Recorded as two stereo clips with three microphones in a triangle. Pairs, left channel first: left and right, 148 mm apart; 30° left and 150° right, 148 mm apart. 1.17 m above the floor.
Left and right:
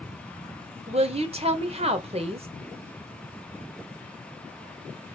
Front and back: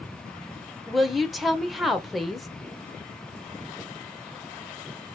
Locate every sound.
0.9 s a woman speaking: 60° right, 0.8 m